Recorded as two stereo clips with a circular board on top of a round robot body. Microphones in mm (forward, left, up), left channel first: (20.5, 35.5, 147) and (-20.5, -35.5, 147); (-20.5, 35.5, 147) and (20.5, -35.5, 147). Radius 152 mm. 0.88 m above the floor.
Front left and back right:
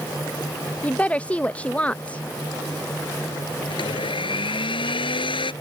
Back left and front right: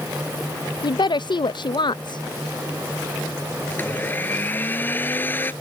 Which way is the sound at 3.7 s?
55° left.